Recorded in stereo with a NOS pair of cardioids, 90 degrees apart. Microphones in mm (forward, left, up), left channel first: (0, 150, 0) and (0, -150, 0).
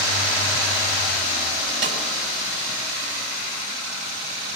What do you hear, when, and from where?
1.8 s a snare drum: 40° right, 7 m